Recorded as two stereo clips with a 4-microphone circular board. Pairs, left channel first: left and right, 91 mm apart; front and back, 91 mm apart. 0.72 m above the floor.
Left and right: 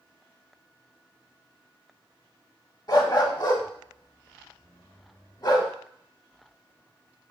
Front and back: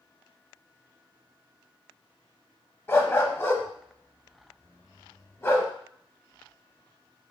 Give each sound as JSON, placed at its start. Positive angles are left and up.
{"t": 2.9, "sound": "a dog barking", "azimuth_deg": 60, "distance_m": 0.8}